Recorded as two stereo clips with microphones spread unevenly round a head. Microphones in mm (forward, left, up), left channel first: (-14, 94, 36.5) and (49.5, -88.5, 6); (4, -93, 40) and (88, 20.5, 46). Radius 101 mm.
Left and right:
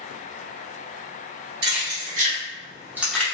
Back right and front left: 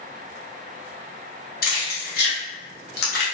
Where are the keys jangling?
115° right, 1.3 m; by 3.2 s 175° right, 0.6 m.